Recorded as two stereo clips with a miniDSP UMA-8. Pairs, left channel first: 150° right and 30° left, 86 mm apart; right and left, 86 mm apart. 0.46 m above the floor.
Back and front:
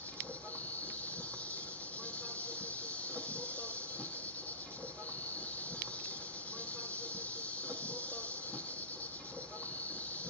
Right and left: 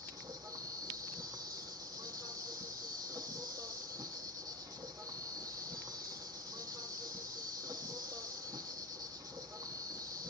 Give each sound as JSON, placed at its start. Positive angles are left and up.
{"t": 0.0, "sound": "an insect", "azimuth_deg": 135, "distance_m": 2.0}